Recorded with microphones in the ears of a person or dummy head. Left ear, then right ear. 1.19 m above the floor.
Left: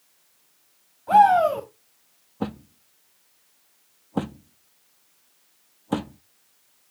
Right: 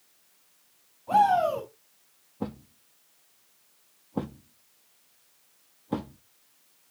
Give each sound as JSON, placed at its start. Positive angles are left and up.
{"t": 1.1, "sound": "a shout", "side_deg": 55, "distance_m": 8.0}
{"t": 2.4, "sound": "a thud", "side_deg": 35, "distance_m": 0.7}